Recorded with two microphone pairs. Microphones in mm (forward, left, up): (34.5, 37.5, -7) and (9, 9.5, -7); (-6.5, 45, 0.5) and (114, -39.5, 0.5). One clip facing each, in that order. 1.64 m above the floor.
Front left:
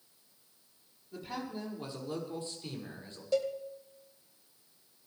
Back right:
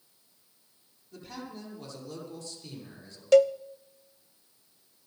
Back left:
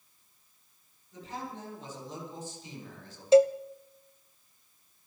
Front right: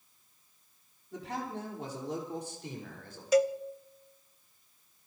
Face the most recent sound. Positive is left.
turn(degrees=-150)